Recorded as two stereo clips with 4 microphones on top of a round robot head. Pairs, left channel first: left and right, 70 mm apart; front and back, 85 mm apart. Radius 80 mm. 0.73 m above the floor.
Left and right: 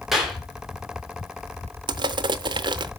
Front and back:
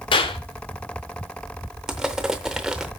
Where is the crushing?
100° right, 0.6 m.